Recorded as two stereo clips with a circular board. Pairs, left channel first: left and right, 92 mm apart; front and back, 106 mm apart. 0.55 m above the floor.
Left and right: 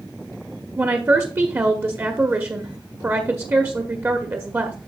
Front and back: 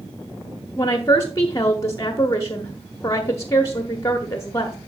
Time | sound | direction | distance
0.8 | a woman speaking | 45° right | 0.8 m